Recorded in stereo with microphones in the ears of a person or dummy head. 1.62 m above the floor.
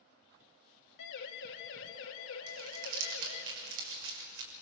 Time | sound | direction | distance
1.0 | a siren | 55° left (ahead or behind) | 2.5 m
2.5 | crumpling | 75° right (ahead or behind) | 6.5 m